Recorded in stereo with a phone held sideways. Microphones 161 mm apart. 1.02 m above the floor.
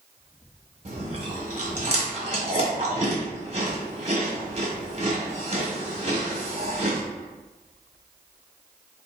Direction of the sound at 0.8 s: 40° right (ahead or behind).